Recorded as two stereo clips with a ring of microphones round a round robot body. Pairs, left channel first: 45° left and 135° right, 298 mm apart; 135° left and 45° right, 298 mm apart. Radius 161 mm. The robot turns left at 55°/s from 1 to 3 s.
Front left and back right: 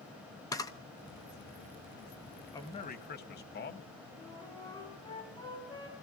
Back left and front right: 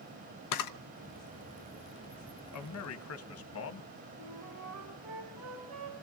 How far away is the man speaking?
About 1.1 m.